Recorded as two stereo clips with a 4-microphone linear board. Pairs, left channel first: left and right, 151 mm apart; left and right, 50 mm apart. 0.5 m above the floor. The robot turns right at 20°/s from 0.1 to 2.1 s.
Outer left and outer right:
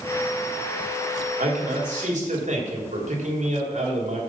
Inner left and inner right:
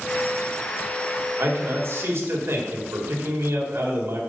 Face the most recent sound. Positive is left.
turn(degrees=-55)  # may be behind; listen again after turning